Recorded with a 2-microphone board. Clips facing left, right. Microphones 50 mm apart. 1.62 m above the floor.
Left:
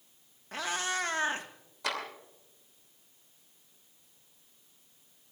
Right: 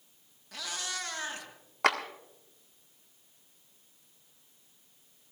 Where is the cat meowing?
40° left (ahead or behind), 1.3 m.